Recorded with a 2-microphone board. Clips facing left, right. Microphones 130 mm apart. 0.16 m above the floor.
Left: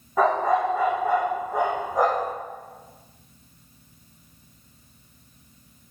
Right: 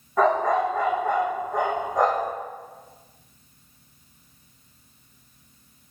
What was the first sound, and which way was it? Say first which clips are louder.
A dog barking: even; 5° left (ahead or behind).